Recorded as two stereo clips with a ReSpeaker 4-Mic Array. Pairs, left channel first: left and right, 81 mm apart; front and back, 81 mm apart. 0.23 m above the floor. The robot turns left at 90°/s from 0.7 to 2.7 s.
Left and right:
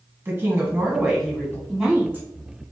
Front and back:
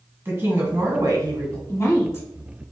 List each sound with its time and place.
0.2 s a woman speaking: 135° right, 1.6 m; by 1.6 s 145° left, 1.6 m
1.7 s a woman speaking: straight ahead, 1.8 m; by 2.3 s 50° right, 1.8 m